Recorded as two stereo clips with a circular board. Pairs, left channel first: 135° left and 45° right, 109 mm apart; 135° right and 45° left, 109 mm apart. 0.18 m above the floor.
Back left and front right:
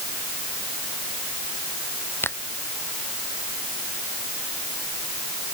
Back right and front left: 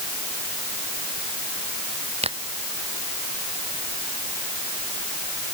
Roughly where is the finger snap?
Ahead left.